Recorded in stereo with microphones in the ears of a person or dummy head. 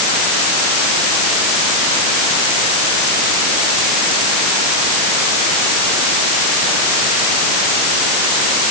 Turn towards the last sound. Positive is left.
No sound to turn to.